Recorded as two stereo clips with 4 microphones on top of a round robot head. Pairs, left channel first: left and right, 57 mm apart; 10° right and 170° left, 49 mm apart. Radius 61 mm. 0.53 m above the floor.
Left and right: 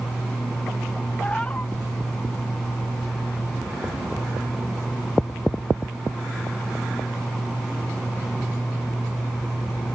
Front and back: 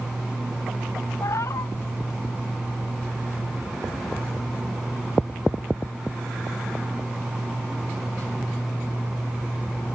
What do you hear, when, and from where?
1.2 s a cat meowing: 15° left